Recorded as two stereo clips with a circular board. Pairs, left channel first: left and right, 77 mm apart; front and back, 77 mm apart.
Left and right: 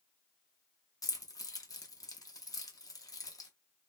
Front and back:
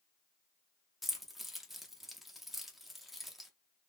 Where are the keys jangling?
95° left, 0.7 m.